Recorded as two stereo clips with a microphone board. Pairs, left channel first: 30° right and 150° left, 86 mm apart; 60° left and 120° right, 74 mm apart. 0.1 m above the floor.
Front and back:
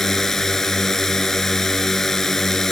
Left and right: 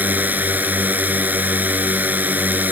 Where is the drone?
110° right.